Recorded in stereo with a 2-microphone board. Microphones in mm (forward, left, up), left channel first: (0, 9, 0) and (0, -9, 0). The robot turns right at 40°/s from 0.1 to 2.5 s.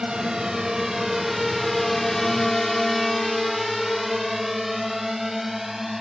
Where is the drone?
60° right (ahead or behind); by 6.0 s 15° right (ahead or behind).